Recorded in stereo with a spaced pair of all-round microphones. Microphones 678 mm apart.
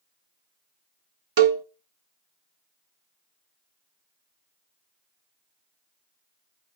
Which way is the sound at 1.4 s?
45° right (ahead or behind).